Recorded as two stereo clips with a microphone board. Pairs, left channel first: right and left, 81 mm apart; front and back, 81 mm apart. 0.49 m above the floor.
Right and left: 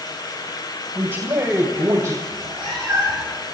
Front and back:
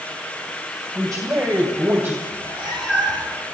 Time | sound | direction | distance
0.9 | a man speaking | 145° left | 3 m
2.3 | a cat meowing | 175° right | 9 m